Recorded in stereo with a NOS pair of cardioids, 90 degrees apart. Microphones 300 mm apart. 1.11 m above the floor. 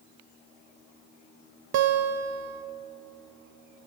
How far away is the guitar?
About 0.6 m.